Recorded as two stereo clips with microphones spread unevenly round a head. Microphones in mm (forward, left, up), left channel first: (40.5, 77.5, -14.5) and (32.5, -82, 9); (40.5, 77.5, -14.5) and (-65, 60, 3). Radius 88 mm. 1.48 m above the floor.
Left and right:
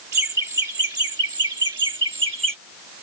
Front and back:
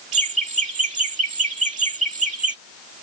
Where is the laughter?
170° right; by 2.6 s 155° right.